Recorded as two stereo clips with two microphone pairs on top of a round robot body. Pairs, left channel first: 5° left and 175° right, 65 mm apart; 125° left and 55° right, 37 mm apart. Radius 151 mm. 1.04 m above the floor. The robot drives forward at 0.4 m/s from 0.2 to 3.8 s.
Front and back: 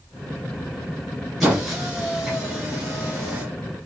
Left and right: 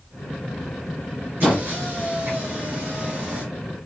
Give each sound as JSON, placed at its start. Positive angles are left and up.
{"t": 1.4, "sound": "a squeak", "azimuth_deg": -90, "distance_m": 1.9}